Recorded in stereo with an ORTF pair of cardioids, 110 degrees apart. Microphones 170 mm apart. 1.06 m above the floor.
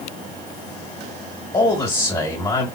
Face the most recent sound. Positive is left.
turn(degrees=25)